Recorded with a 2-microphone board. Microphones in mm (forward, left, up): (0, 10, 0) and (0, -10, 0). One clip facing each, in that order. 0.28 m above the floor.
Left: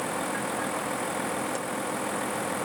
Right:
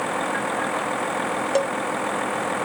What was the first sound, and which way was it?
A vehicle, 25° right (ahead or behind).